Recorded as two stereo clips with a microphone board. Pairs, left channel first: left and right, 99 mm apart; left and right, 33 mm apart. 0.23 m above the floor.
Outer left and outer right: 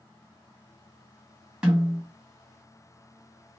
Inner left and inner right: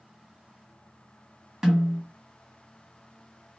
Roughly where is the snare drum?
Centre.